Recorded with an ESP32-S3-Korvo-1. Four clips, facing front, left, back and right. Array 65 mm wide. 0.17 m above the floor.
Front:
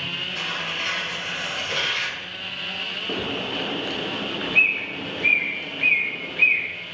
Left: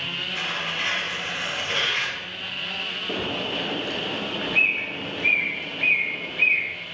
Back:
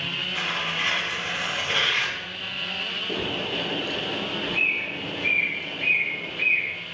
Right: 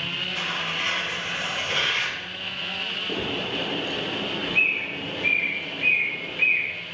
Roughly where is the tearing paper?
Behind.